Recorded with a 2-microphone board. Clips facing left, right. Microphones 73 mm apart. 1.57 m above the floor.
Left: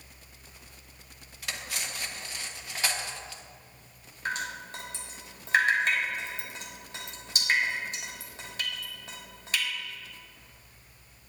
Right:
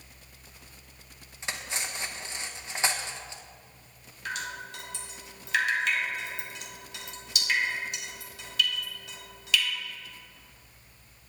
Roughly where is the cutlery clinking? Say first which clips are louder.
Right 2 dB; right.